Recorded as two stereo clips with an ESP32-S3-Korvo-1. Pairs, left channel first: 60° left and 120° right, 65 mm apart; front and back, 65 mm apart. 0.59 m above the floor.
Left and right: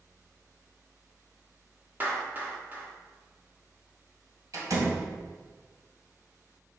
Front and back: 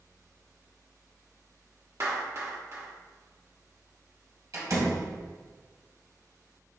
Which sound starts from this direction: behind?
A clap, at 2.0 s.